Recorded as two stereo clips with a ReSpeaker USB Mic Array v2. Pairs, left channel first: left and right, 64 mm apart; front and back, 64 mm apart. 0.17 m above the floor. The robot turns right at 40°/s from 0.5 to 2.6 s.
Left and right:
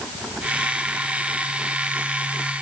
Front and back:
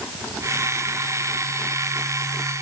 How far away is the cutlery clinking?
I don't hear cutlery clinking.